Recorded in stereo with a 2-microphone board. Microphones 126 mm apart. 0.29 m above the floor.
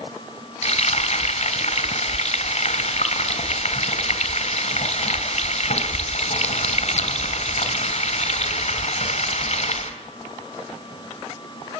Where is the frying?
60° left (ahead or behind), 2.5 m.